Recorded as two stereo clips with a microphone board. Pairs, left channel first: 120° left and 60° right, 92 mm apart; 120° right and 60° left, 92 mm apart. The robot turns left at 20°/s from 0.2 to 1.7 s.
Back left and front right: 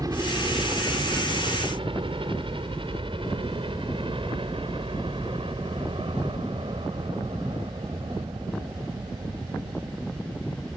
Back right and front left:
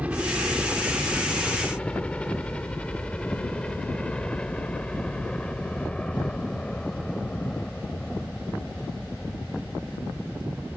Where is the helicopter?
15° right; by 10.8 s 40° right.